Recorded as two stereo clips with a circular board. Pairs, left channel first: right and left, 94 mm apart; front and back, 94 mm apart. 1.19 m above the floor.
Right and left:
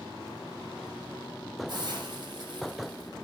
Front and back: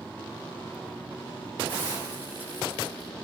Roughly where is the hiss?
Behind left.